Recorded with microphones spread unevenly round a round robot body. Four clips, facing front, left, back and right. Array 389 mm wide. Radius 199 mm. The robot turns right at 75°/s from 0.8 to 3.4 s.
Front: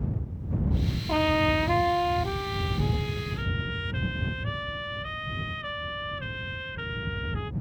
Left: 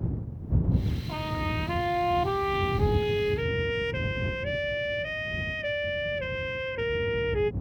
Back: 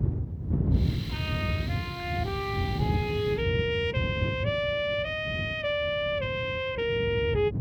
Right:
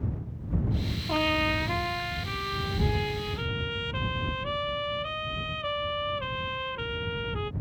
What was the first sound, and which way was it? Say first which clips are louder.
A trumpet: right 7 dB, front 11 dB; 30° right.